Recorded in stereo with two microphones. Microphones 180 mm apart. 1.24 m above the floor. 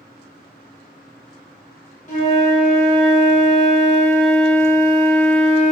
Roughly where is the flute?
Left.